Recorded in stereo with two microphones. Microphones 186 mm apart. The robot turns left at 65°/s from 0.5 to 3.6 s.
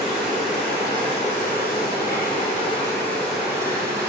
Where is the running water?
Straight behind, 0.7 m; by 4.1 s 20° right, 0.7 m.